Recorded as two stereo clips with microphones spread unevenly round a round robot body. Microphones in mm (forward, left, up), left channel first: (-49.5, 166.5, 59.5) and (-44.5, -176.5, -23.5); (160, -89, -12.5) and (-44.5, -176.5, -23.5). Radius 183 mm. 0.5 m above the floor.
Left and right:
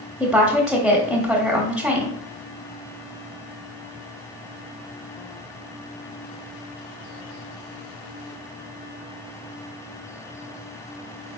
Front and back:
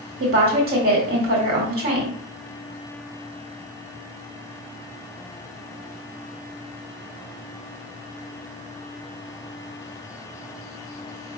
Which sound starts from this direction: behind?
A woman speaking, at 0.2 s.